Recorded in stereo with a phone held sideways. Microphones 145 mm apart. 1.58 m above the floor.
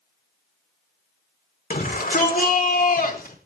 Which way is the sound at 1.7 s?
85° left.